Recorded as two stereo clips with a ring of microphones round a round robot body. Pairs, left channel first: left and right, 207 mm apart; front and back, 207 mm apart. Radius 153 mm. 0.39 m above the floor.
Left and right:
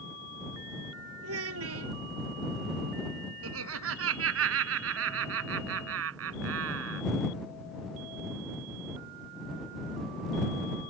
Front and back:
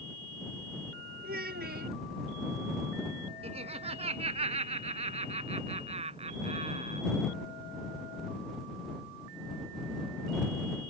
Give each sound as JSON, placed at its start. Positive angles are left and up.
{"t": 1.2, "sound": "a child speaking", "azimuth_deg": -120}
{"t": 3.4, "sound": "laughter", "azimuth_deg": -110}